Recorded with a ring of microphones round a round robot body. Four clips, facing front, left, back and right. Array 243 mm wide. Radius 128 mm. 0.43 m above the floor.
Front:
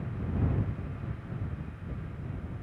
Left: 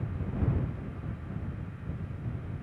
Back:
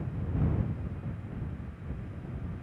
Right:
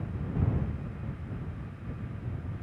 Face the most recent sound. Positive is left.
No sound to turn to.